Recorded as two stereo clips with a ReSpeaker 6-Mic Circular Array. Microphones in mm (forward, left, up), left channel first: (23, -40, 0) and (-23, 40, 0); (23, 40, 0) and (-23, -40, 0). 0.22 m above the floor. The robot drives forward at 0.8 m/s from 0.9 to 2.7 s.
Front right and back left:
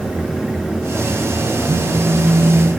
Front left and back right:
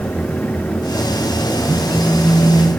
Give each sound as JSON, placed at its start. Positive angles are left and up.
{"t": 1.7, "sound": "a phone buzzing", "azimuth_deg": 145, "distance_m": 3.0}